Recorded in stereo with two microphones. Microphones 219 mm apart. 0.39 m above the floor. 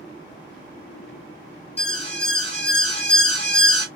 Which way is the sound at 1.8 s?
30° left (ahead or behind).